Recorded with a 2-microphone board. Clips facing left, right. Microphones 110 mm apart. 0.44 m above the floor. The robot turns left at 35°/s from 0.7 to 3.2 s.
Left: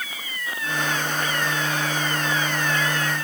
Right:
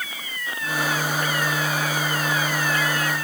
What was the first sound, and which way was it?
Only background noise.